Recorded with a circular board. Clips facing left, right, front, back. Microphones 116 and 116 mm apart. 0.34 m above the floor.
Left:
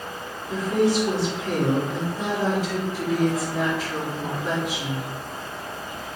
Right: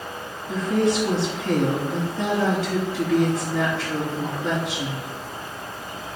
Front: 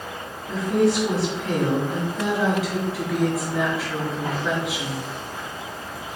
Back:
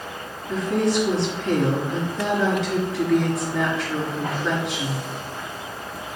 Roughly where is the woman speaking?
Right.